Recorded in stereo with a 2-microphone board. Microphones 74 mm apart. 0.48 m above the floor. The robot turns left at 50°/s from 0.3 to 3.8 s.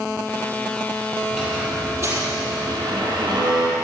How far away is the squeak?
About 5 m.